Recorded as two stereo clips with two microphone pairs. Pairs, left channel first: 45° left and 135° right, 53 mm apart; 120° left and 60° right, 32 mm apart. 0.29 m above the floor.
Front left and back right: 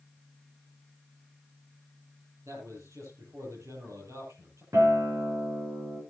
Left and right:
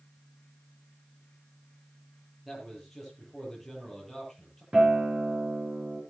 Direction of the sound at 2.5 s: 155° right.